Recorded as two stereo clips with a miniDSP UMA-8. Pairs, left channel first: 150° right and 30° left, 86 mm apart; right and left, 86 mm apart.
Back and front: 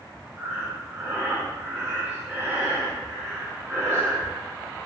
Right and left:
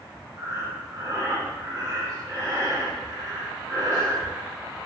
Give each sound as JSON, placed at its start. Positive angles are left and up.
{"t": 0.4, "sound": "breathing", "azimuth_deg": 75, "distance_m": 0.9}